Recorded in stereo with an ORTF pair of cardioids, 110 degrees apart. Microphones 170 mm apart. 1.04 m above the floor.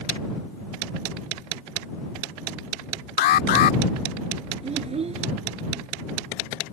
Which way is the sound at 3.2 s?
65° left.